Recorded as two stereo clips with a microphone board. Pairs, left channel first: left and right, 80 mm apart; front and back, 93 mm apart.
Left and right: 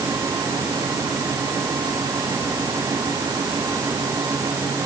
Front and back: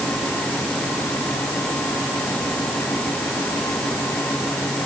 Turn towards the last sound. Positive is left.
No sound to turn to.